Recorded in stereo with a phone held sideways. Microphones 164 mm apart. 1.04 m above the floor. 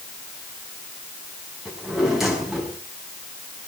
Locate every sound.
1.6 s a drawer: 5° right (ahead or behind), 6 m